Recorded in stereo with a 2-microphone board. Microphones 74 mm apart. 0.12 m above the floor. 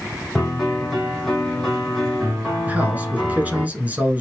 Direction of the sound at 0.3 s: Centre (ahead or behind).